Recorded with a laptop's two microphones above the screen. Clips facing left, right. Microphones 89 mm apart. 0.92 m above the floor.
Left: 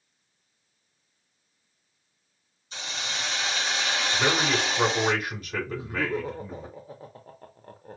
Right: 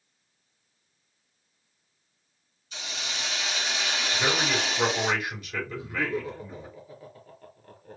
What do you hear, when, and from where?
2.7 s a hiss: 35° left (ahead or behind), 1.8 m
4.1 s a man speaking: 40° left (ahead or behind), 3.5 m
5.7 s laughter: 35° left (ahead or behind), 0.7 m